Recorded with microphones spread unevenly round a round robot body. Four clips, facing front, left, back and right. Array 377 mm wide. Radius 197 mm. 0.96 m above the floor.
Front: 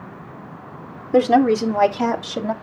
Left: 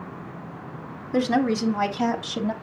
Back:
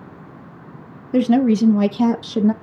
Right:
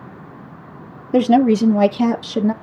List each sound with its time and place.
1.1 s a woman speaking: 80° right, 0.8 m; by 2.5 s 145° right, 1.0 m